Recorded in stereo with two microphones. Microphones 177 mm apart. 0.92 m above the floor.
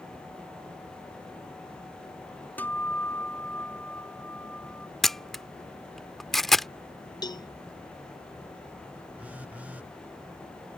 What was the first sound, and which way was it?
A guitar, 10° left (ahead or behind).